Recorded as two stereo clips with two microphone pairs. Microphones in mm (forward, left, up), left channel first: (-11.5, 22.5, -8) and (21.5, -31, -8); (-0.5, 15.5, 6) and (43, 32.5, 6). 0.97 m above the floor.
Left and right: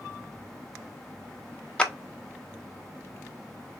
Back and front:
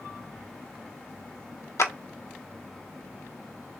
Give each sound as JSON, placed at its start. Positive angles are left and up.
{"t": 1.8, "sound": "a clap", "azimuth_deg": -160, "distance_m": 0.8}